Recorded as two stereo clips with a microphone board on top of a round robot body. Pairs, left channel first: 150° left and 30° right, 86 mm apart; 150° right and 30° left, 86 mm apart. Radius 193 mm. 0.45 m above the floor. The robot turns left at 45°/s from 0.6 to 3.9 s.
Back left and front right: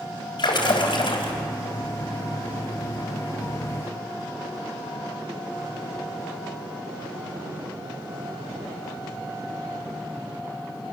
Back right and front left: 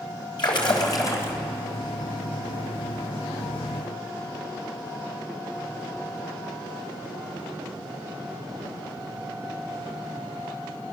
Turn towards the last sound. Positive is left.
turn(degrees=35)